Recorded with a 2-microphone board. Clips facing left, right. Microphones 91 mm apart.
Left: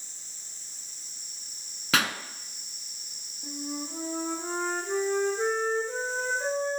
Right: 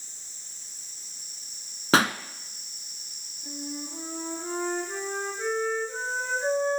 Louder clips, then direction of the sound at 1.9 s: Right 6 dB; 35° right (ahead or behind).